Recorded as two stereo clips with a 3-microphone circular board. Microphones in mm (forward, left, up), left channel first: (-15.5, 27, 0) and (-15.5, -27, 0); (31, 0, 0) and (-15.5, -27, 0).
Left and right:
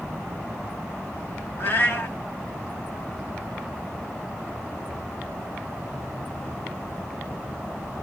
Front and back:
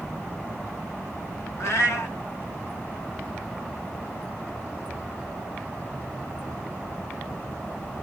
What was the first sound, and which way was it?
A cat meowing, 50° left.